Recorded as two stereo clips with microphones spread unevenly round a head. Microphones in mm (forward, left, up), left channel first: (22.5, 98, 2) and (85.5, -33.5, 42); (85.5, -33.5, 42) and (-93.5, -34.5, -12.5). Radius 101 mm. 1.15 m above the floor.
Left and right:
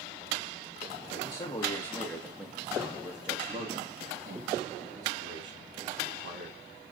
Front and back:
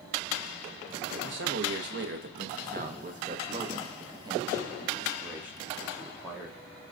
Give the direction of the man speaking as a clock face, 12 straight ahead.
6 o'clock.